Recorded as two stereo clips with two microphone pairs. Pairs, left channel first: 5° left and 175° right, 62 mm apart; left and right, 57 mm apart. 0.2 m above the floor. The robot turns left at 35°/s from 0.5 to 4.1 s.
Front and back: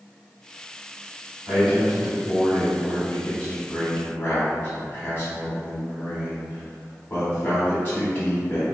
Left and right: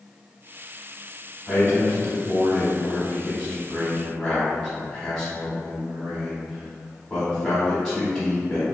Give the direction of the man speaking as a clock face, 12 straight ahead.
8 o'clock.